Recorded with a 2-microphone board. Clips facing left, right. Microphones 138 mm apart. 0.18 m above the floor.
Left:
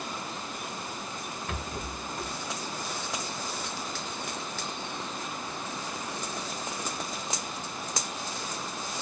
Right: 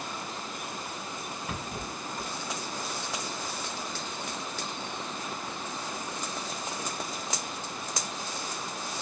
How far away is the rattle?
About 1.4 m.